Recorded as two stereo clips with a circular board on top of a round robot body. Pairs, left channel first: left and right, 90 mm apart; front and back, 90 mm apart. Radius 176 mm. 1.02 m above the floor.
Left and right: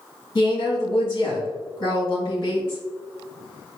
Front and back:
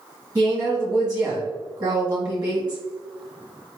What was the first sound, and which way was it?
A woman speaking, 130° left.